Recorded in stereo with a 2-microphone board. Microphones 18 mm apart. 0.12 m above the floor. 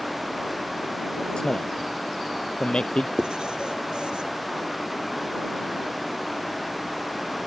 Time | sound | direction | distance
1.4 | a man speaking | 50° left (ahead or behind) | ?
3.2 | writing | 55° right (ahead or behind) | ?